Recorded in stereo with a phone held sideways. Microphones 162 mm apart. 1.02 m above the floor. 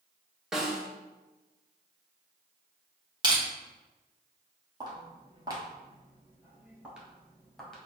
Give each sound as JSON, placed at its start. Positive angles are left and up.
{"t": 0.5, "sound": "a snare drum", "side_deg": -5, "distance_m": 0.8}
{"t": 3.2, "sound": "crushing", "side_deg": -30, "distance_m": 1.1}
{"t": 4.8, "sound": "footsteps", "side_deg": -25, "distance_m": 1.4}